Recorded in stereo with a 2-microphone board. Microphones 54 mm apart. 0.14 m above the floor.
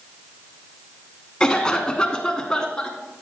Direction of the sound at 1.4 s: 15° left (ahead or behind).